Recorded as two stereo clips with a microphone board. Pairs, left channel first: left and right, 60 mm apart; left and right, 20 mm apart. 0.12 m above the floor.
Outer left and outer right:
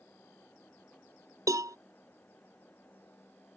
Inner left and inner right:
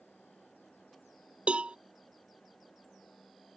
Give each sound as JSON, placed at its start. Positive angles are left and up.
{"t": 1.5, "sound": "a cowbell", "side_deg": -70}